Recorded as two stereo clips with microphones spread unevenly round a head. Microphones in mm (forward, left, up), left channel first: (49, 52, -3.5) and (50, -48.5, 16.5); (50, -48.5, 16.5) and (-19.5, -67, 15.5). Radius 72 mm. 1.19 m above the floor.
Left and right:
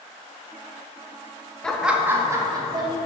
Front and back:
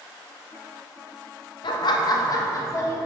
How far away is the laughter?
About 0.7 m.